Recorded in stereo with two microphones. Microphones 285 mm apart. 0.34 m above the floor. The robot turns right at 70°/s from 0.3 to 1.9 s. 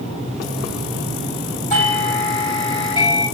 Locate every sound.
1.7 s a doorbell: 25° left (ahead or behind), 2.5 m; by 3.2 s 15° left (ahead or behind), 2.5 m